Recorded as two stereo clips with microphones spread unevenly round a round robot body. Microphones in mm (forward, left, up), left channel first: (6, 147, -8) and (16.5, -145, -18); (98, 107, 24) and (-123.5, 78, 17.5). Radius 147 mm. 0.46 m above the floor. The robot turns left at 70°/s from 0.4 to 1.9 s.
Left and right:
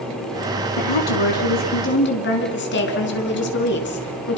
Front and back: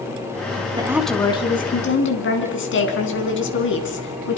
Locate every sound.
0.8 s a woman speaking: 120° left, 5.5 m; by 4.4 s 40° left, 5.5 m